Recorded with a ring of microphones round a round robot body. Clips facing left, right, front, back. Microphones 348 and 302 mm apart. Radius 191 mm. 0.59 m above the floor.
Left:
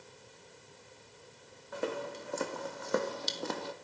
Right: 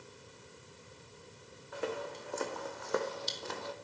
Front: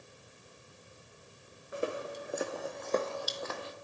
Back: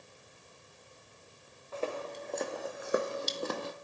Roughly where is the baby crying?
No baby crying in this recording.